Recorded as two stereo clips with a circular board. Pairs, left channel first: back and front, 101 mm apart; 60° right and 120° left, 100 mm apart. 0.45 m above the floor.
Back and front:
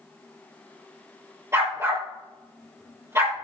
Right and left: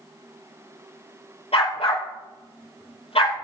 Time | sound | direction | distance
1.5 | a dog barking | 60° right | 3.5 m